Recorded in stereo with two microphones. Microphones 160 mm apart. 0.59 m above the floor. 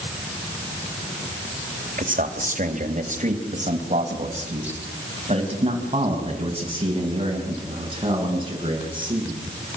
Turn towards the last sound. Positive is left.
turn(degrees=-30)  # may be behind; listen again after turning